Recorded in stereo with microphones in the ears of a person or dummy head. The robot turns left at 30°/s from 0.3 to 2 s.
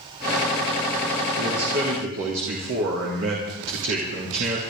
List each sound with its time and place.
1.4 s a man speaking: 55° right (ahead or behind), 3 m; by 4.6 s 75° right (ahead or behind), 3 m